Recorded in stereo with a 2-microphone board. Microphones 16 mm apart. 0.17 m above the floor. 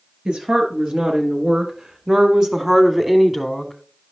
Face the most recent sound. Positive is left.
turn(degrees=15)  # may be behind; listen again after turning